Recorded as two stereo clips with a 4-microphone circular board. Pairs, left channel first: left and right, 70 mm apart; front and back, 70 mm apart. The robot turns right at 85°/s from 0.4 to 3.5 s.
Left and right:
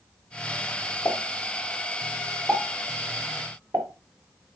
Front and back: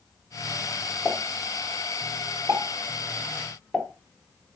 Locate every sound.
1.1 s a pop: 60° left, 1.5 m; by 3.9 s 90° right, 1.5 m